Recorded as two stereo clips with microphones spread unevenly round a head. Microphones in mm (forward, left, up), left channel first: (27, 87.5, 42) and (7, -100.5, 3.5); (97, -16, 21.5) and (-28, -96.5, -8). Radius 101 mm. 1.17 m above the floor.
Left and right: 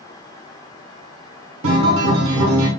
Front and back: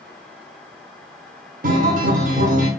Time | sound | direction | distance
1.6 | a guitar | 120° right | 1.2 m